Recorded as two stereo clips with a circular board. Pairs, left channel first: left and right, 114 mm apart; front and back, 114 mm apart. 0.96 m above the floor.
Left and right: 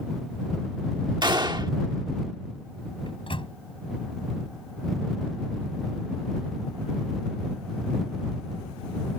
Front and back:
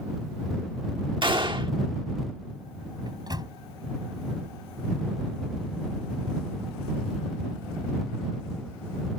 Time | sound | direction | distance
1.2 | a gunshot | 135° right | ?
3.1 | a microwave | 130° left | ?